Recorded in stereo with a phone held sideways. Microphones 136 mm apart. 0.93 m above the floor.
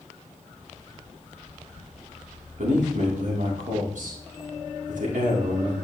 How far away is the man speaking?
About 2.5 m.